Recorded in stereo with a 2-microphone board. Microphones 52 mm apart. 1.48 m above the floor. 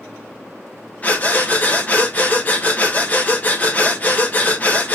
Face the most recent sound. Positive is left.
turn(degrees=30)  # may be behind; listen again after turning